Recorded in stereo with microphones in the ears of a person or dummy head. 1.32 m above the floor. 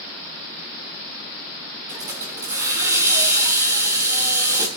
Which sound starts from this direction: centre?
A hiss, at 1.9 s.